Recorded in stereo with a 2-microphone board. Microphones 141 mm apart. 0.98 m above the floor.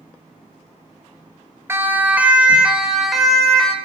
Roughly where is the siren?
Centre.